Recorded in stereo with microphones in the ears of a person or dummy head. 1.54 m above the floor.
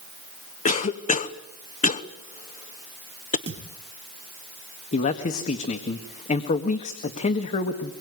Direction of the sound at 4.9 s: 45° left (ahead or behind).